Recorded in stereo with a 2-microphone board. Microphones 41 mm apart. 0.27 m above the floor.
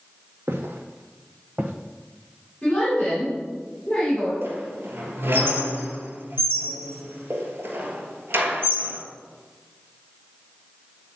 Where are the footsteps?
80° right, 1.2 m; by 1.7 s 40° right (ahead or behind), 0.8 m.